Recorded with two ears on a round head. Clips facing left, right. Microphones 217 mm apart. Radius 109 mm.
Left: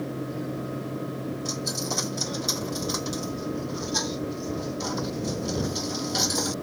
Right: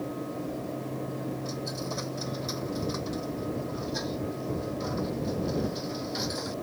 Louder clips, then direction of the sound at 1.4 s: Left 3 dB; 65° left (ahead or behind).